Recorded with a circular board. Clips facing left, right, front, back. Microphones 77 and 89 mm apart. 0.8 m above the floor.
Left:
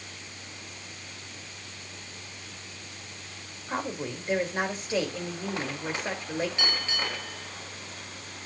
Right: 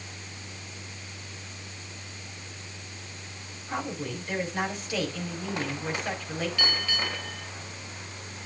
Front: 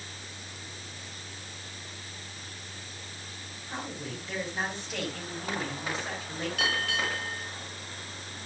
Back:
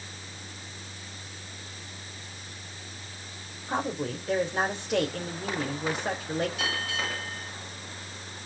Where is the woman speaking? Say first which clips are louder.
Left 1 dB, back 8 dB; 150° left, 2.5 m.